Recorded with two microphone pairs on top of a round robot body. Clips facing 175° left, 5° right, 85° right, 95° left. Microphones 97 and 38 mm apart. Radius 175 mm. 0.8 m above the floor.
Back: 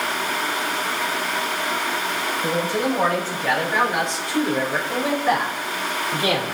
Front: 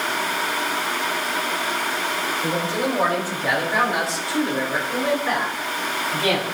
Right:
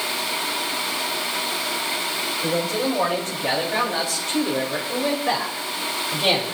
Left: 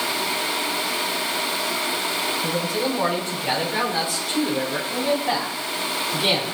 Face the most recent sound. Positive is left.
turn(degrees=-115)